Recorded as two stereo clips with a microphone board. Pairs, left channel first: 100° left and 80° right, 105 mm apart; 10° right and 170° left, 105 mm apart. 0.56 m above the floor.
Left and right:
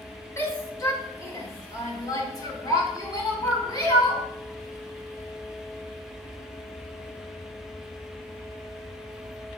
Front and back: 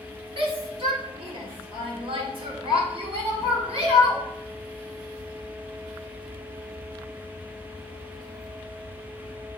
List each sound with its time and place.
0.4 s a shout: 155° left, 1.8 m; by 4.2 s 150° left, 4 m